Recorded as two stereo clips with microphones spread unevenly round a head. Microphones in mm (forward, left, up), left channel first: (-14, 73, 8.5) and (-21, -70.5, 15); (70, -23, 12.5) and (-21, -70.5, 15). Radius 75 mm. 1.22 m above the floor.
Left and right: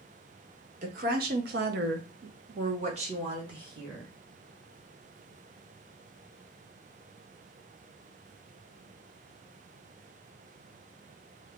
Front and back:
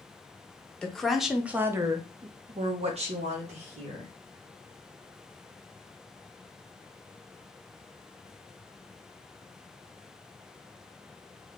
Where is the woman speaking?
55° right, 0.9 m; by 4.1 s 160° right, 1.2 m.